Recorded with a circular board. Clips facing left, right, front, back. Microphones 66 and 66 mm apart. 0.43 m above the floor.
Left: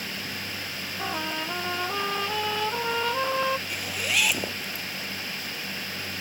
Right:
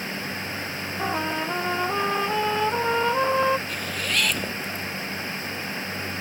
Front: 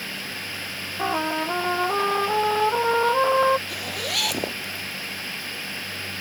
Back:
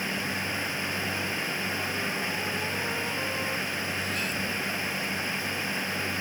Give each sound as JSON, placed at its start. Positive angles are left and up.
{"t": 1.0, "sound": "a trumpet", "azimuth_deg": -15}
{"t": 3.7, "sound": "a zipper", "azimuth_deg": 10}